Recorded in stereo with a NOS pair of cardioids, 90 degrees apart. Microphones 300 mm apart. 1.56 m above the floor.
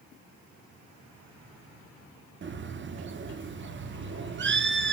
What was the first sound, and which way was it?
A bird, 40° right.